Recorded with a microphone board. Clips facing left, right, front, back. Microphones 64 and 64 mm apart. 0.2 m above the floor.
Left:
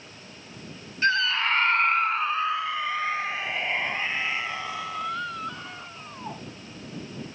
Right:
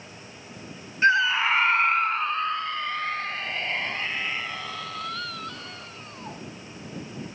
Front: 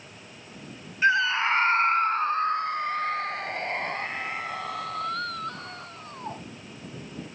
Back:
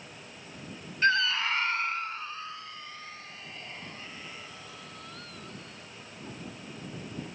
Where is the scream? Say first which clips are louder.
Right 3 dB, front 4 dB; 60° right; by 6.4 s 15° left.